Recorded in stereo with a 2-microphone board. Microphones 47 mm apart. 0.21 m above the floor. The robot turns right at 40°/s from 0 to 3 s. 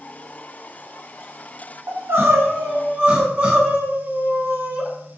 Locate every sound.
1.9 s crying: 80° right, 0.9 m; by 4.9 s 35° right, 0.9 m